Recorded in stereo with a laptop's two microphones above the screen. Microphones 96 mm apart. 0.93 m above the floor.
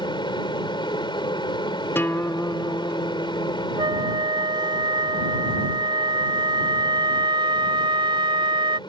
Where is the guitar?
25° left (ahead or behind).